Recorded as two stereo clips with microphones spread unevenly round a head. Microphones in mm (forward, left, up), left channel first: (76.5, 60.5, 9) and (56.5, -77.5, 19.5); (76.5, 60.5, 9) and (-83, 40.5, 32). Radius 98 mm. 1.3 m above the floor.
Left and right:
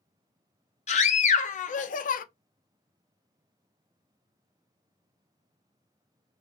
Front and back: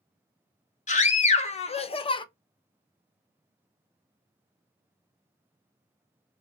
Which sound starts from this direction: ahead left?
A scream, at 0.9 s.